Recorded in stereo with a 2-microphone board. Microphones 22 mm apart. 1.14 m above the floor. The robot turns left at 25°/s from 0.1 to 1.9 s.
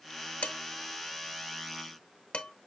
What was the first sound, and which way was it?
Dishes clattering, 80° left.